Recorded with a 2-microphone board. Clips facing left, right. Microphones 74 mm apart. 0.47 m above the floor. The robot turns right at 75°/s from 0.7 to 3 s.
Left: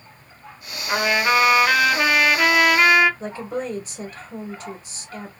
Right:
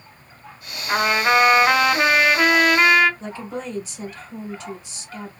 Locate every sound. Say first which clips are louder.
0.9 s a trumpet: right 1 dB; 15° right (ahead or behind), 0.9 m; by 3.1 s 5° left (ahead or behind), 0.9 m
3.2 s a woman speaking: left 3 dB; 45° left (ahead or behind), 1.2 m